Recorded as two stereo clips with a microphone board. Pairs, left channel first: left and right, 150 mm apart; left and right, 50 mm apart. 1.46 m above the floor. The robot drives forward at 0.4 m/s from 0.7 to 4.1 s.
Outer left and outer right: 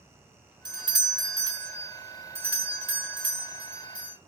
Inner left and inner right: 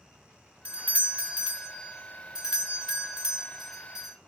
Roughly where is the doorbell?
Right.